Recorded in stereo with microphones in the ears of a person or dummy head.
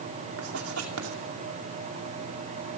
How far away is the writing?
About 2.5 m.